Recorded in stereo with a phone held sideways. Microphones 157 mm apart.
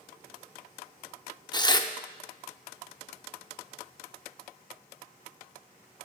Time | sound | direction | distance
1.5 | tearing paper | 25° left (ahead or behind) | 0.5 m